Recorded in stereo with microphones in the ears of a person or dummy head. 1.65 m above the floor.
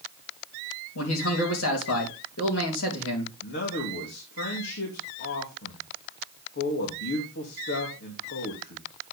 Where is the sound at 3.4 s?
60° left (ahead or behind), 2.5 m.